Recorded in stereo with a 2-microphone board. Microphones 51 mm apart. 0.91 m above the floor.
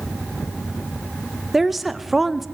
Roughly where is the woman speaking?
Centre.